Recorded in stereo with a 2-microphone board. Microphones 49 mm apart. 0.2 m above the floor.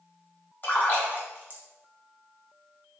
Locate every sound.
0.6 s a splash: 45° left (ahead or behind), 1.1 m